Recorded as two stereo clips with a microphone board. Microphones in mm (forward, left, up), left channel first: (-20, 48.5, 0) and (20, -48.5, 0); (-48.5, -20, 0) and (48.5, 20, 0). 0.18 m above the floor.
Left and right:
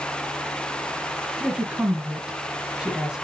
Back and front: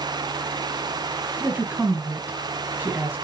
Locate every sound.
1.4 s a woman speaking: 5° right, 1.0 m